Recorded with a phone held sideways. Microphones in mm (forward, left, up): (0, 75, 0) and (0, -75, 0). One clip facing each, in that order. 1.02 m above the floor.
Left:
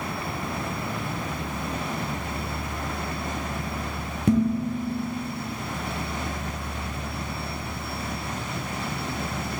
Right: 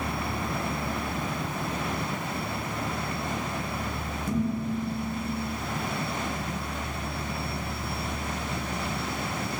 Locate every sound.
4.3 s dishes clattering: 75° left (ahead or behind), 0.8 m